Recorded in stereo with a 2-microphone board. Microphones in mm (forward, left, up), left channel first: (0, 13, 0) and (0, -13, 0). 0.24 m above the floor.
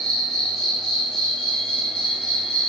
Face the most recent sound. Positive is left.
turn(degrees=0)  # may be behind; listen again after turning